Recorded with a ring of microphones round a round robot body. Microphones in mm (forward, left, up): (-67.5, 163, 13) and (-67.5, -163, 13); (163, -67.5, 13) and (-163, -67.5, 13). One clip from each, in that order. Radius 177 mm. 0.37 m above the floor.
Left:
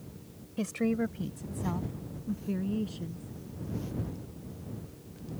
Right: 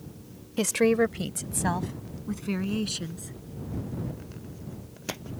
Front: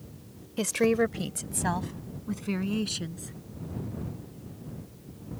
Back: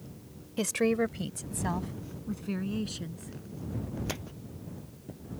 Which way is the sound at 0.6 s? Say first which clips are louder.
Right 9 dB, front 3 dB; 90° right.